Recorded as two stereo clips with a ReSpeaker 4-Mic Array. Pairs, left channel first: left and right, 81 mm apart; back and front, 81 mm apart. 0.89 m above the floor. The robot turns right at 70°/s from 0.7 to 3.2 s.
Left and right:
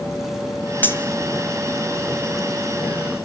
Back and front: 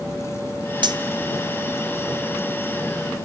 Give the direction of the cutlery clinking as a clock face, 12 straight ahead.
11 o'clock.